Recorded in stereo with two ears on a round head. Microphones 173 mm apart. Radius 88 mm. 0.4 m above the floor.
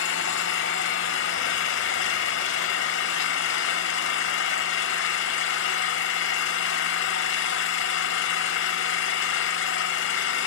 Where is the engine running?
70° left (ahead or behind), 0.9 m.